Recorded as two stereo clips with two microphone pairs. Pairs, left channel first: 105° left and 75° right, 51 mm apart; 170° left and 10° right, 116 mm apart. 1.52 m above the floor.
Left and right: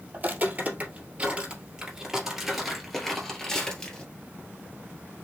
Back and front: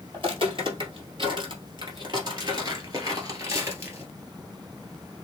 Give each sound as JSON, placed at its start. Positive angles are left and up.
{"t": 0.1, "sound": "footsteps", "azimuth_deg": -30, "distance_m": 2.5}